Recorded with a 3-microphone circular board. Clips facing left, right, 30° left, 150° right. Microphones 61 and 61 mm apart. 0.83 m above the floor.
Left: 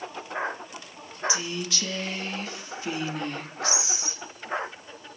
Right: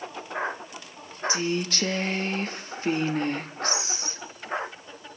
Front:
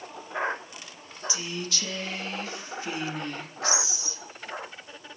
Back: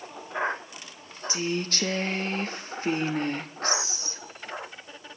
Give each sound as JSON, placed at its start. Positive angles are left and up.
{"t": 1.3, "sound": "a woman speaking", "azimuth_deg": -120, "distance_m": 1.4}